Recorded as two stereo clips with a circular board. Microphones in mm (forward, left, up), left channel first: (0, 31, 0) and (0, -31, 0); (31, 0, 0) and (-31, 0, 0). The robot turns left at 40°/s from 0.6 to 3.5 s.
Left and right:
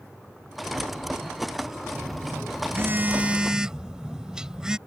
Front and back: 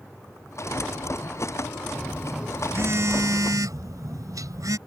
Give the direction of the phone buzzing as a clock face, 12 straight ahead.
4 o'clock.